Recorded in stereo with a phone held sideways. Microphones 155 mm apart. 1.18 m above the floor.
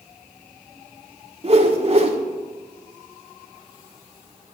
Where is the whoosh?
40° right (ahead or behind), 1.2 m.